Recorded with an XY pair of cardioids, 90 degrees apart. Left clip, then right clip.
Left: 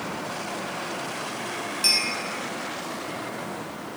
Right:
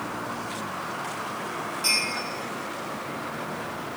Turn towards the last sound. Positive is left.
turn(degrees=65)